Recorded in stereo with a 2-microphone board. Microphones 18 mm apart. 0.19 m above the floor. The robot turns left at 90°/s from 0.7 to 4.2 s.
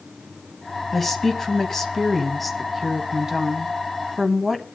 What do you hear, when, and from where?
0.9 s a woman speaking: 10° left (ahead or behind), 1.4 m; by 4.6 s 15° right (ahead or behind), 1.4 m